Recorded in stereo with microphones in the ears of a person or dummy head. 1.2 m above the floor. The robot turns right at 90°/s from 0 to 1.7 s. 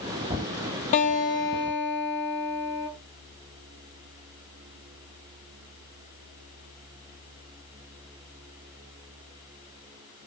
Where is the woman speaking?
I don't hear a woman speaking.